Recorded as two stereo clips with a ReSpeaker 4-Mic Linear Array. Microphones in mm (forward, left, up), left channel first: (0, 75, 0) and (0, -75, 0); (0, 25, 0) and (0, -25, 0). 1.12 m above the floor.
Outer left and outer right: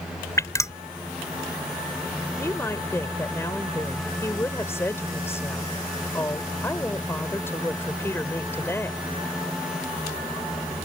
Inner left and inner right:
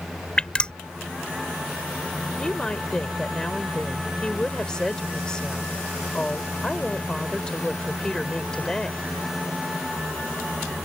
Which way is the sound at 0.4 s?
20° left (ahead or behind).